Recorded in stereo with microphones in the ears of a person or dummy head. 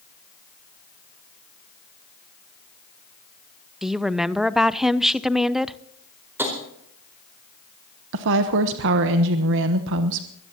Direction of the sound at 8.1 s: 65° right (ahead or behind).